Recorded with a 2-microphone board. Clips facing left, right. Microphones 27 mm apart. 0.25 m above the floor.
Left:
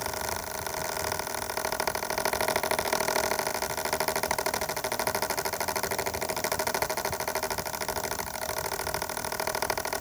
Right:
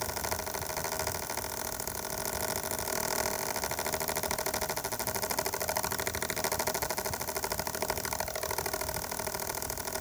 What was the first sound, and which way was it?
Only background noise.